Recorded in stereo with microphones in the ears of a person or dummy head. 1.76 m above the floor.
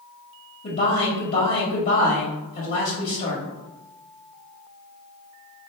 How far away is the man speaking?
About 1.9 m.